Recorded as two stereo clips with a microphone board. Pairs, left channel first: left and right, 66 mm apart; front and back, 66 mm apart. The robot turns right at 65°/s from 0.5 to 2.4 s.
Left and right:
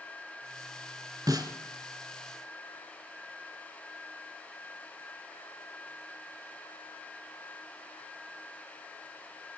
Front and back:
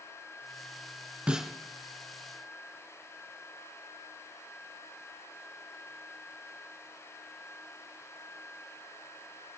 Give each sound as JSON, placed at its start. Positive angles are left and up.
{"t": 1.3, "sound": "a snare drum", "azimuth_deg": -105, "distance_m": 1.9}